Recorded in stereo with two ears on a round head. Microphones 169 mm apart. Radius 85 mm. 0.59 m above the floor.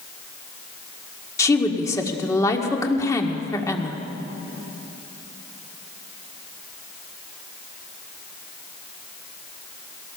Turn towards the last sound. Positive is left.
turn(degrees=15)  # may be behind; listen again after turning